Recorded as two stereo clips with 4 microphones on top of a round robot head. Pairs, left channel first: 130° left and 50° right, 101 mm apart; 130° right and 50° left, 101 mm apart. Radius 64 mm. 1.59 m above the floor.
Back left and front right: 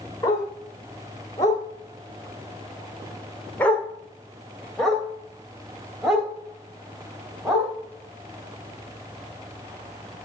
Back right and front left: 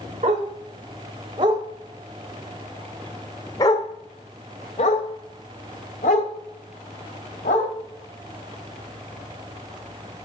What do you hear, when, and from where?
0.2 s a dog barking: 70° left, 2 m; by 7.7 s 135° right, 3.5 m